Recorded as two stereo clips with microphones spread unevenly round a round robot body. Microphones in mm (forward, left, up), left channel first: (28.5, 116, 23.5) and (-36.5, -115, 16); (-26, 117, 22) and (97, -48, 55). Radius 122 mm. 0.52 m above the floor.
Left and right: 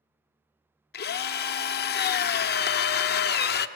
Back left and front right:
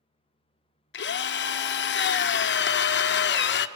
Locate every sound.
0.9 s a drill: 120° left, 0.6 m